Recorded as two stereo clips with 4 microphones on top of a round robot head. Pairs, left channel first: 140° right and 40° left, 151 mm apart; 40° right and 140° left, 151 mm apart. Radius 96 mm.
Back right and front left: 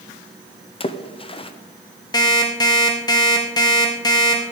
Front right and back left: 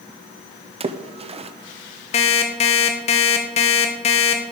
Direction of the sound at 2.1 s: 80° right.